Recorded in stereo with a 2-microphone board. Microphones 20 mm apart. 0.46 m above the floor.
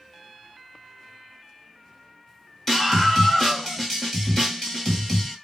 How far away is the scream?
About 1.6 m.